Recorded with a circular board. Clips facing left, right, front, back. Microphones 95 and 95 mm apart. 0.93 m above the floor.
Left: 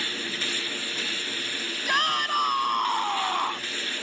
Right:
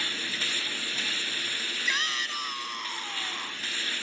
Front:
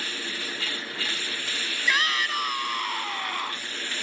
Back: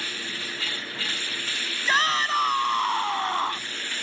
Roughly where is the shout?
Behind left.